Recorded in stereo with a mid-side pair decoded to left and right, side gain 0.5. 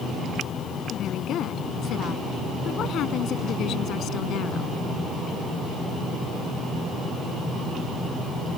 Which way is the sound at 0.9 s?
65° left.